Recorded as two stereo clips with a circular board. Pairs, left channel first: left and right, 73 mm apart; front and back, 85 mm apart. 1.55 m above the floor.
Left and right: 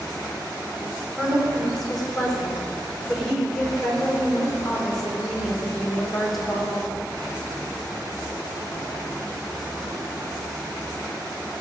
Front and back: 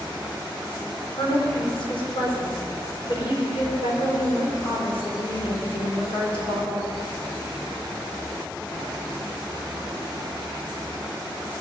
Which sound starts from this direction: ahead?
A woman speaking, at 1.2 s.